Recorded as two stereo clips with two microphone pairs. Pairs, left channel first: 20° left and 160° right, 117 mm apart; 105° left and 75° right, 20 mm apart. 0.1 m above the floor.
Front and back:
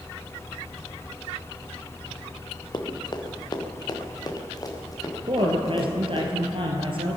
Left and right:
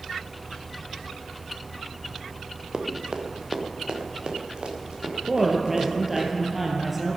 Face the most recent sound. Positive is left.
turn(degrees=-145)